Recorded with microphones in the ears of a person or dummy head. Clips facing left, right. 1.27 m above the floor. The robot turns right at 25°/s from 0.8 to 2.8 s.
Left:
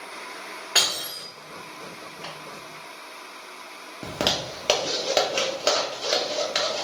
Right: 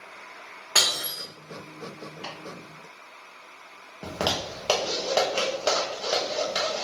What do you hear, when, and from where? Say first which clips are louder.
0.8 s breaking glass: even; 10° left (ahead or behind), 1.8 m; by 1.2 s centre (ahead or behind), 1.8 m
2.2 s chopping: left 1 dB; 15° right (ahead or behind), 2 m
4.0 s a zipper: left 1 dB; 25° left (ahead or behind), 0.8 m